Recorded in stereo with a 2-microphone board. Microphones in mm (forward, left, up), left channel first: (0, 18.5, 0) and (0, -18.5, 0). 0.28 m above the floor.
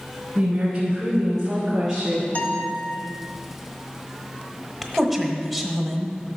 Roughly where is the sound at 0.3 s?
Right.